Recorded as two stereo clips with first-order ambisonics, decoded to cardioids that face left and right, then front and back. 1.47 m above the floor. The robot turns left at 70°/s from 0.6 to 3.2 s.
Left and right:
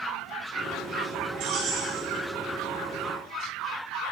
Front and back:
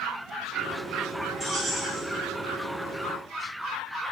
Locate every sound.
1.4 s keys jangling: 80° right, 2.5 m; by 2.0 s 120° right, 2.5 m